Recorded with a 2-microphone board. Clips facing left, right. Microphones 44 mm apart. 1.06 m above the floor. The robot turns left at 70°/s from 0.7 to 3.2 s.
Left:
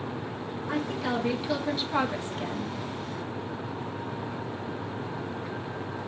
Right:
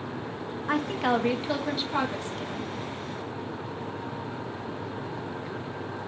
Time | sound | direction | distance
0.7 | a woman speaking | 100° right | 1.2 m